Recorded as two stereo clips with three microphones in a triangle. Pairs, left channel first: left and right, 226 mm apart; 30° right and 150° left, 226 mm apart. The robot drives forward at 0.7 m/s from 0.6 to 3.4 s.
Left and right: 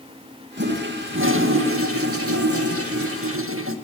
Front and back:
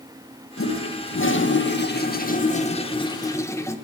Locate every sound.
0.6 s a toilet flushing: 50° right, 2 m; by 3.8 s 110° right, 1.8 m